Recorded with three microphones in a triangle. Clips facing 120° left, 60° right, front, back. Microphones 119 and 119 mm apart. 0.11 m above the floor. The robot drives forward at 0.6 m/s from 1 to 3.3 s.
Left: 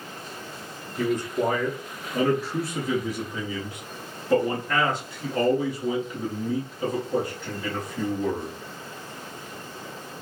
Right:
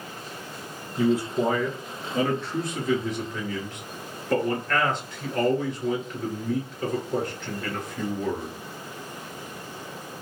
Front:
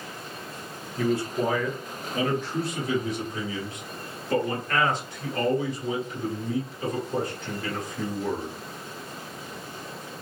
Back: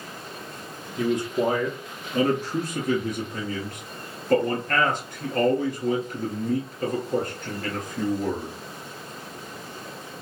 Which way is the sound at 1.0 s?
120° right.